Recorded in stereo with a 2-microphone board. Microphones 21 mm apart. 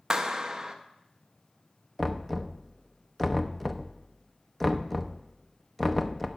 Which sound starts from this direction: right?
A clap, at 0.1 s.